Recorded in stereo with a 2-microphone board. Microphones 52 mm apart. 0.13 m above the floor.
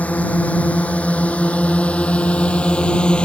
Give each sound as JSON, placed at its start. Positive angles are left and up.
{"t": 0.0, "sound": "a drone", "side_deg": 30}